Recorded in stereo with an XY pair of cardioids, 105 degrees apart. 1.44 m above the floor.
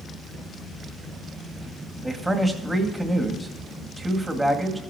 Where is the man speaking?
10° right, 2 m.